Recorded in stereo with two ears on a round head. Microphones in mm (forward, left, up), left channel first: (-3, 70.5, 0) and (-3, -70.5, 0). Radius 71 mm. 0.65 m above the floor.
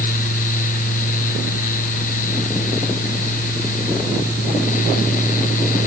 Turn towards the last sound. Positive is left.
No sound to turn to.